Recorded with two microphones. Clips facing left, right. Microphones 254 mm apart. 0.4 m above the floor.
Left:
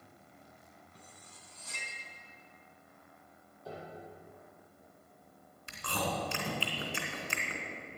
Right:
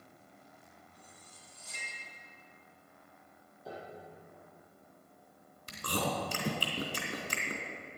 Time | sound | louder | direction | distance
0.9 | cutlery clinking | left 1 dB | 75° left (ahead or behind) | 2.5 m
3.6 | a piano | even | centre (ahead or behind) | 6 m
5.7 | chewing | right 2 dB | 40° right (ahead or behind) | 2.5 m